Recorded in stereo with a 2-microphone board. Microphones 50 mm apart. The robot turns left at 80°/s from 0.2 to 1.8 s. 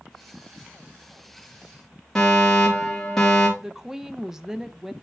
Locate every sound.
2.1 s a fire alarm: 10° left (ahead or behind), 2.5 m
3.6 s a woman speaking: 10° right (ahead or behind), 0.6 m